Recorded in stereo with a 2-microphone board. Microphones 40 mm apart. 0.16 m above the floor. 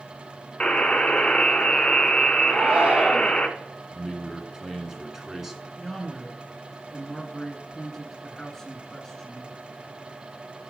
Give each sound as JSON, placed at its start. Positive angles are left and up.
{"t": 0.6, "sound": "a buzzer", "side_deg": 30, "distance_m": 0.9}
{"t": 2.5, "sound": "a shout", "side_deg": -30, "distance_m": 1.4}
{"t": 3.9, "sound": "a man speaking", "side_deg": -5, "distance_m": 1.4}
{"t": 5.8, "sound": "a man speaking", "side_deg": 10, "distance_m": 1.8}